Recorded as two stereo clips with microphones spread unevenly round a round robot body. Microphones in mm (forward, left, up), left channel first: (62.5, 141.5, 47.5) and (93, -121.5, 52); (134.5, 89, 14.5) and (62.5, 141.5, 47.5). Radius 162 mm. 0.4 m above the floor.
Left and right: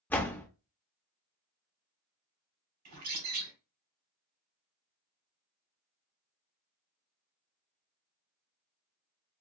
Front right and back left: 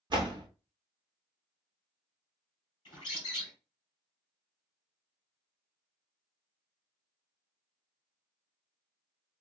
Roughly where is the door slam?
Behind.